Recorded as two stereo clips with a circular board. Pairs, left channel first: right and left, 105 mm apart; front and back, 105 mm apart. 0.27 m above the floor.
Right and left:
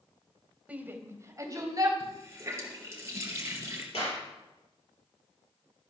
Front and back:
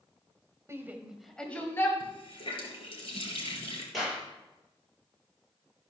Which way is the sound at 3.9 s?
90° right.